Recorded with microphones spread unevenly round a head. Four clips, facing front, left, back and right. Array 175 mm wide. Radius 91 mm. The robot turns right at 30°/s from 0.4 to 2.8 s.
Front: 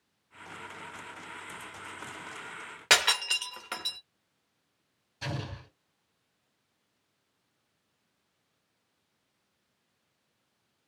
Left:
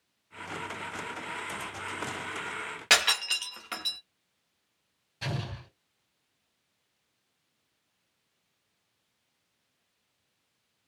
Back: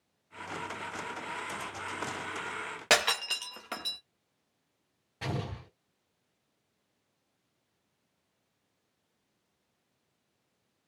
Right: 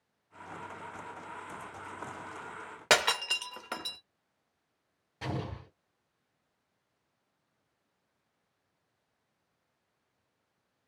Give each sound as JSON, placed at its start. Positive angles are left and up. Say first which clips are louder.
{"t": 2.9, "sound": "breaking glass", "louder": "right 1 dB, even", "azimuth_deg": -115, "distance_m": 0.8}
{"t": 5.2, "sound": "an explosion", "louder": "even, back 2 dB", "azimuth_deg": -150, "distance_m": 3.0}